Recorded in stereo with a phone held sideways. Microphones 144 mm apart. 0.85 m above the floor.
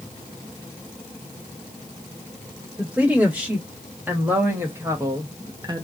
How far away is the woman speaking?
About 1.8 m.